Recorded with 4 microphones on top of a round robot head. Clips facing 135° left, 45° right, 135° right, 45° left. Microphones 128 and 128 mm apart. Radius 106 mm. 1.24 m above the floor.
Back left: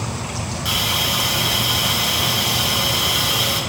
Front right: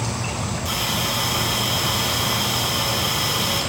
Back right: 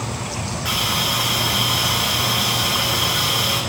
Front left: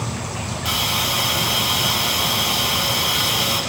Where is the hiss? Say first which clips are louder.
Back left 1 dB, even; 110° left, 5.5 m.